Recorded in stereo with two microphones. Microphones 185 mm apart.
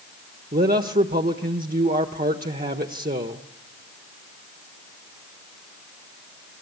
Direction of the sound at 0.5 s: 50° right (ahead or behind).